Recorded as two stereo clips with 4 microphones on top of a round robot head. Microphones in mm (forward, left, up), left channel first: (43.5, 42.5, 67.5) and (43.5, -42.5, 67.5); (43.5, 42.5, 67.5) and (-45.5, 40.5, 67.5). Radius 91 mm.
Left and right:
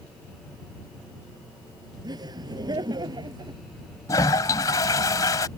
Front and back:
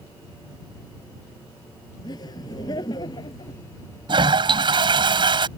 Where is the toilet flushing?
150° left.